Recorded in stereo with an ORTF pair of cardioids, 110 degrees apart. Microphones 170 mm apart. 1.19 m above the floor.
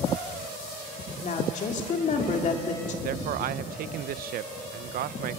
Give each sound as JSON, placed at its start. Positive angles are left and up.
{"t": 1.2, "sound": "a woman speaking", "azimuth_deg": 45, "distance_m": 3.5}
{"t": 3.0, "sound": "a man speaking", "azimuth_deg": -60, "distance_m": 0.7}